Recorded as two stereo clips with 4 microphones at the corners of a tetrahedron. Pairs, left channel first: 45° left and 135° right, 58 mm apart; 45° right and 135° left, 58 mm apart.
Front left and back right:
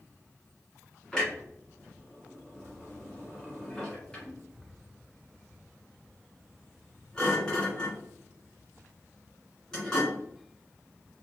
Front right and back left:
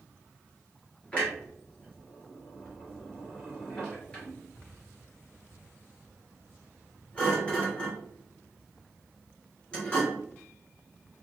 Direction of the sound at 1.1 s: 15° right.